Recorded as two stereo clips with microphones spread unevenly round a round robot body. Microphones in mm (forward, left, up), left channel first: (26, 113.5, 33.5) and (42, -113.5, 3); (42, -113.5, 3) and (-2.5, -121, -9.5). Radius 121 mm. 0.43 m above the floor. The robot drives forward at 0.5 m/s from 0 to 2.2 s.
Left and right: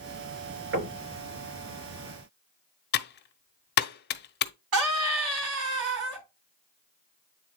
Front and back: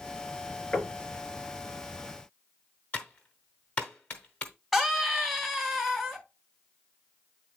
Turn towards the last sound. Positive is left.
turn(degrees=-80)